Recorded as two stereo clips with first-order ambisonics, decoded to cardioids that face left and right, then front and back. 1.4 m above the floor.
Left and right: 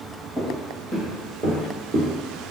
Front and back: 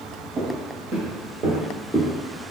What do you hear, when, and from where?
0.4 s footsteps: 170° right, 1.9 m; by 2.1 s 135° left, 1.3 m